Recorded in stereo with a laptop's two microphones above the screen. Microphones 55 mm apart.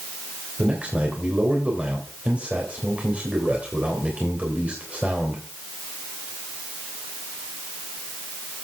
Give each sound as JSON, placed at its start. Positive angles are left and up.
{"t": 0.6, "sound": "a man speaking", "side_deg": -25, "distance_m": 3.0}